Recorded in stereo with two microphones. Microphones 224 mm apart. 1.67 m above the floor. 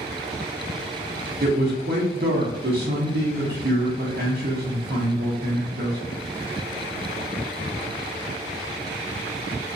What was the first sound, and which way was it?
A man speaking, 45° right (ahead or behind).